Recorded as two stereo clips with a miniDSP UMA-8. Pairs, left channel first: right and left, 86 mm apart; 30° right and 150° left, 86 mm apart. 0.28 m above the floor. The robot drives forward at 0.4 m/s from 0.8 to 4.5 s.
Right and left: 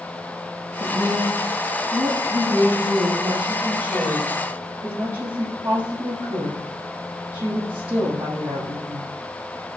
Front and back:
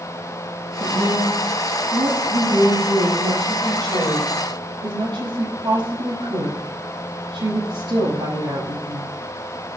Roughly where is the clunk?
I don't hear a clunk.